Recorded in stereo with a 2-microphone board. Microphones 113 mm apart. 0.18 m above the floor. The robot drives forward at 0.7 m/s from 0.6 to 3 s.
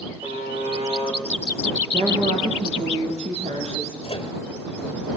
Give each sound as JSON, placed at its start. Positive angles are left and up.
{"t": 0.2, "sound": "a buzzer", "side_deg": -55, "distance_m": 7.5}
{"t": 1.9, "sound": "a woman speaking", "side_deg": -70, "distance_m": 5.5}
{"t": 4.0, "sound": "a microwave", "side_deg": 55, "distance_m": 2.5}